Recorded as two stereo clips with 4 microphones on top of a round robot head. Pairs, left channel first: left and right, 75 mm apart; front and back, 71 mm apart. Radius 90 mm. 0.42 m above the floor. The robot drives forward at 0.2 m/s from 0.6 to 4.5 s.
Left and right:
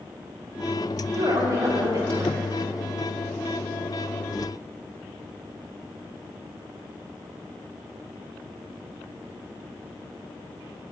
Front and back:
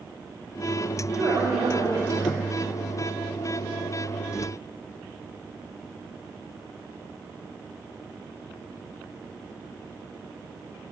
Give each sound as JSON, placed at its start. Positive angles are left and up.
{"t": 1.1, "sound": "a woman speaking", "azimuth_deg": -135, "distance_m": 3.0}